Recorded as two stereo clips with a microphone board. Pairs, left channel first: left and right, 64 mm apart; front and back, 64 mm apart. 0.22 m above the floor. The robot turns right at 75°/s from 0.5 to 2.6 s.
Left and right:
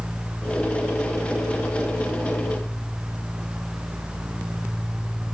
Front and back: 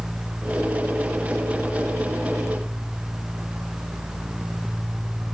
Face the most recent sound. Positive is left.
No sound to turn to.